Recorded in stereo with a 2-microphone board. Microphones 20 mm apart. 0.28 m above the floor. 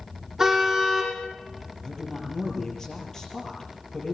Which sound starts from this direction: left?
A woman speaking, at 1.8 s.